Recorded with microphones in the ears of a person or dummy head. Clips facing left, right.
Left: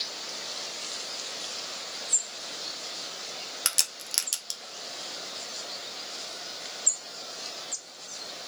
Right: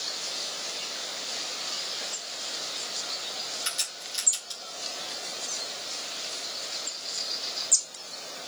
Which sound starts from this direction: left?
A crack, at 3.6 s.